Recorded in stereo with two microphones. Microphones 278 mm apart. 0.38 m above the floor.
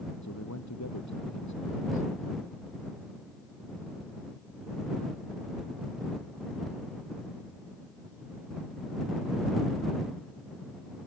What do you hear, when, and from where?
0.2 s a man speaking: 80° left